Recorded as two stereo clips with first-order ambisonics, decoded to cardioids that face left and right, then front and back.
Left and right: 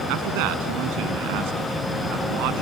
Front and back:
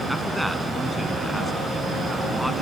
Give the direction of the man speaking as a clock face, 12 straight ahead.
3 o'clock.